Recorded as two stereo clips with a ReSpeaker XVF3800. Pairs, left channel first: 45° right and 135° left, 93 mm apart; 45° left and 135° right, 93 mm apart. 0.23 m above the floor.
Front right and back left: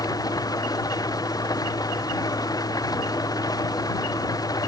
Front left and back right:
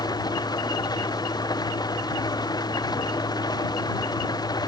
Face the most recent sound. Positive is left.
turn(degrees=5)